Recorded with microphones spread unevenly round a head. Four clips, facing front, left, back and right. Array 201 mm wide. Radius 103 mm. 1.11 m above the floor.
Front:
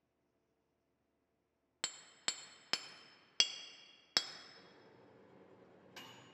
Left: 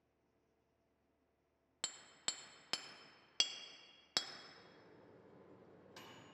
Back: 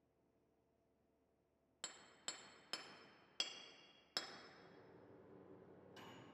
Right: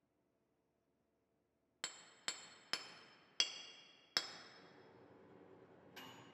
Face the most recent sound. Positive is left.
turn(degrees=20)